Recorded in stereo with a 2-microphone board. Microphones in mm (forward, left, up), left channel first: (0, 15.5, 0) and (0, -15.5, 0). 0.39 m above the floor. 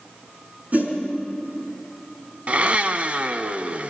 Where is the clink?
No clink in this recording.